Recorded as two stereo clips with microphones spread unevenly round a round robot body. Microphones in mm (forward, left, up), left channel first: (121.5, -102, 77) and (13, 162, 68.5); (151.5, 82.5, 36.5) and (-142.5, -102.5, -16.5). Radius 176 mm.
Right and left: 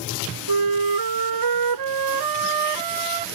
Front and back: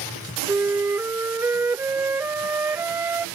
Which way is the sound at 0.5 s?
125° left.